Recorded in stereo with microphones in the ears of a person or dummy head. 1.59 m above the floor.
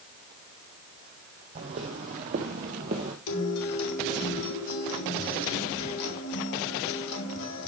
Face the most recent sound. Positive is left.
turn(degrees=85)